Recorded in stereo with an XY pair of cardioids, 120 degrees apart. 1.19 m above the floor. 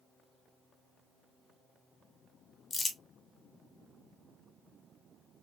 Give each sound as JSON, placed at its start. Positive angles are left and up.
{"t": 2.7, "sound": "crumpling", "azimuth_deg": 30, "distance_m": 1.5}